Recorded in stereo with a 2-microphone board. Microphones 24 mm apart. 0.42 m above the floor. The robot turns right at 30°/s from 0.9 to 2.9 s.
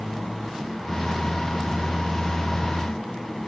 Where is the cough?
I don't hear a cough.